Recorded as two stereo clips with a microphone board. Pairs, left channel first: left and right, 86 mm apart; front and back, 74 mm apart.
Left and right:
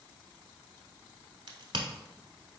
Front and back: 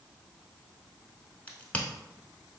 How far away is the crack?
About 0.7 m.